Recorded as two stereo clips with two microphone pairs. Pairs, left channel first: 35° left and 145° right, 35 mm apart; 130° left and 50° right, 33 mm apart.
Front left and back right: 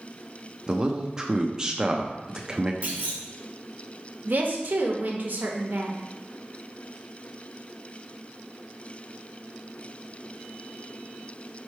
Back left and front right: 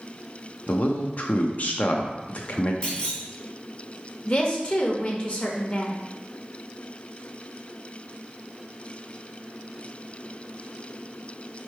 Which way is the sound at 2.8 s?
Straight behind.